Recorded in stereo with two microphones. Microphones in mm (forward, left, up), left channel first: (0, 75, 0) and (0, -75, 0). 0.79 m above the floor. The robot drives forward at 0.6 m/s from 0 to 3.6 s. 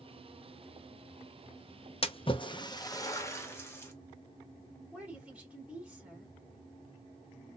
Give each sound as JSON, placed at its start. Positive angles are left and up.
{"t": 2.0, "sound": "a splash", "side_deg": 40, "distance_m": 0.5}
{"t": 4.9, "sound": "a woman speaking", "side_deg": -10, "distance_m": 2.0}